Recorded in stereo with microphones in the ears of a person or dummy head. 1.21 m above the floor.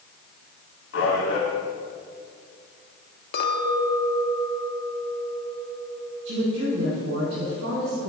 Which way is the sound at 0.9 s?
80° left.